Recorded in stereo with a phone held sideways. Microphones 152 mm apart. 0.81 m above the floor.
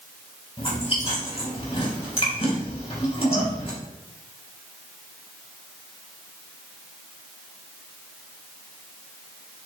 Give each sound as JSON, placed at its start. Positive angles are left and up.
{"t": 0.6, "sound": "chewing", "side_deg": 40, "distance_m": 3.0}